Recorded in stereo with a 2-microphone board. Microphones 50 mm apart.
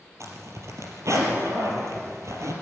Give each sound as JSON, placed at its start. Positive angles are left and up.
{"t": 0.2, "sound": "a zipper", "side_deg": -75, "distance_m": 4.0}